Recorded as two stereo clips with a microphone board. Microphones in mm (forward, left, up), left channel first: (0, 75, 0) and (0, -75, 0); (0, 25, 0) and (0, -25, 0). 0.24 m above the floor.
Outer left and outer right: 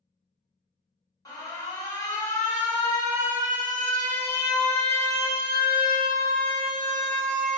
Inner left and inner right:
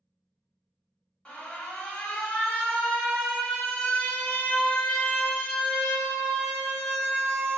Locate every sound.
1.2 s an alarm: 30° left (ahead or behind), 0.9 m